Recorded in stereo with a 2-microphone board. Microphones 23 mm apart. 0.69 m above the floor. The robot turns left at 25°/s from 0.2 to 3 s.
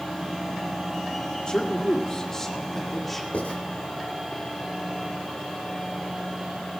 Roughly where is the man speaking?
Ahead left.